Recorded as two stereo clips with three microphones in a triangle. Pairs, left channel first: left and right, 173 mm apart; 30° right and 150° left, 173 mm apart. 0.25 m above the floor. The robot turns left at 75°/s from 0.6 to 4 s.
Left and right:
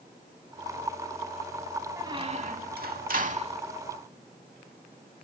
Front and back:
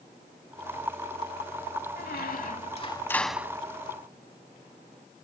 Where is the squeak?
20° right; by 3.6 s 145° right.